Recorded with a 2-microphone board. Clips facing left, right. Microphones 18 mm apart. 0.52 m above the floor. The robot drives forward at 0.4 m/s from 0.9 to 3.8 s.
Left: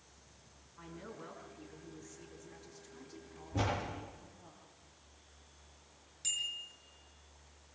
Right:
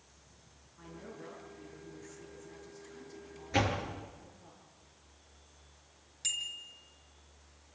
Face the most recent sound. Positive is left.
turn(degrees=-25)  # may be behind; listen again after turning